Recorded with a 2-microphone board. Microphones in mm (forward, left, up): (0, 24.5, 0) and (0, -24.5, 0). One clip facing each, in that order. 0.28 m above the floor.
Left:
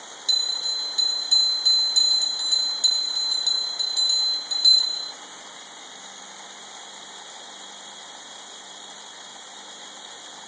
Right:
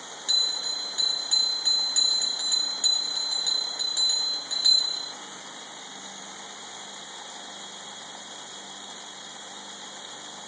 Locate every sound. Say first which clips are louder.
0.3 s a bell: left 2 dB; 25° right (ahead or behind), 2.5 m